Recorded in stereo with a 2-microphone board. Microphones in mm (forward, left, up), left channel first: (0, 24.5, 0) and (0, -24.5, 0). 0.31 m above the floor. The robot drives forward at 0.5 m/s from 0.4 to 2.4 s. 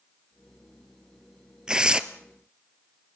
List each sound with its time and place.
1.7 s tearing paper: 15° right (ahead or behind), 1.2 m